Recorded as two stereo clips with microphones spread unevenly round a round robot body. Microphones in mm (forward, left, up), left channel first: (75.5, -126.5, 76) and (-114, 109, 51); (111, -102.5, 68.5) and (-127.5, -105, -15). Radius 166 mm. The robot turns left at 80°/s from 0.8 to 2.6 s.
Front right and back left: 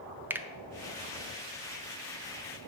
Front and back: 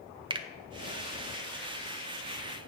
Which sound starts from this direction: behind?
A finger snap, at 0.3 s.